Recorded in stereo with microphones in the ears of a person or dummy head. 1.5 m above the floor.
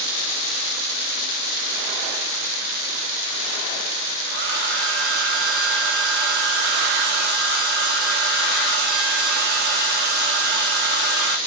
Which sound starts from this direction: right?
A hair dryer, at 4.3 s.